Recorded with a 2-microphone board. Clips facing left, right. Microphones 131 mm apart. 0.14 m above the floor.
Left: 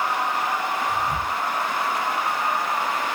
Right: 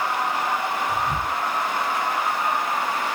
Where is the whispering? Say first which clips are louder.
Even; 15° right (ahead or behind), 4 m.